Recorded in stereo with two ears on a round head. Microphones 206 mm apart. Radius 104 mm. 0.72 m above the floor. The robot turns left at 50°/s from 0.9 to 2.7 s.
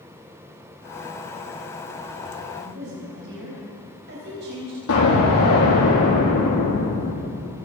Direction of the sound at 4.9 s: 65° left (ahead or behind).